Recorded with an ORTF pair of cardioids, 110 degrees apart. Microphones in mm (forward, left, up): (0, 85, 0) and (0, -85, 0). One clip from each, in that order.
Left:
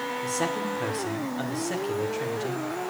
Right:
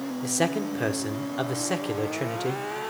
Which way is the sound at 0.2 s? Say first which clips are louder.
Right 4 dB; 35° right.